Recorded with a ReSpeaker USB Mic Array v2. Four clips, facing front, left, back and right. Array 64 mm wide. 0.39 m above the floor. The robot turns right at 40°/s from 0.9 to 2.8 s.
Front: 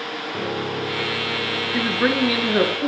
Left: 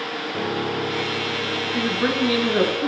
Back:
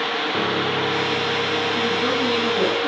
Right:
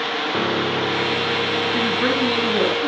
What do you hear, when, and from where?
0.3 s a piano: 115° right, 6.5 m; by 2.7 s 40° right, 6.5 m
1.7 s a woman speaking: 20° right, 5 m; by 2.9 s 25° left, 5 m